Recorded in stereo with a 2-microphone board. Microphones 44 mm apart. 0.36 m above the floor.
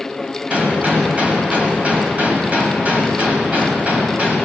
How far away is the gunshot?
About 2 m.